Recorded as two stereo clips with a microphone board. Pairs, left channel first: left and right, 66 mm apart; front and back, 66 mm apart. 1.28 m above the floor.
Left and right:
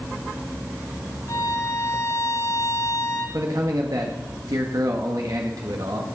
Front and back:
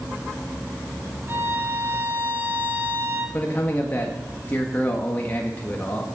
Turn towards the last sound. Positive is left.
turn(degrees=-65)